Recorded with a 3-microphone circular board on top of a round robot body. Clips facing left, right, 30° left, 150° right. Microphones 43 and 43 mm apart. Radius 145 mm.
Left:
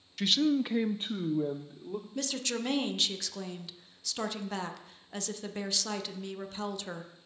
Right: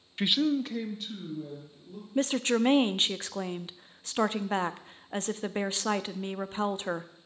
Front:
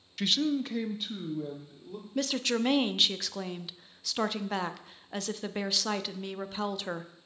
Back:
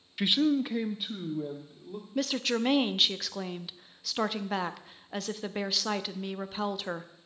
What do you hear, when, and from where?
0.2 s a man speaking: 95° right, 0.6 m; by 2.0 s 125° left, 1.6 m
2.1 s a woman speaking: 65° right, 0.7 m